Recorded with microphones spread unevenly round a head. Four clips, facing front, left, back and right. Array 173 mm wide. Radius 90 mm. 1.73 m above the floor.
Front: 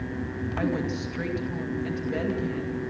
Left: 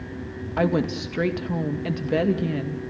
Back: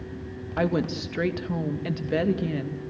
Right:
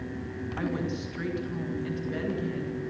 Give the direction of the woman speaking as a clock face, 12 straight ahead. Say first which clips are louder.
Left 9 dB, back 3 dB; 8 o'clock.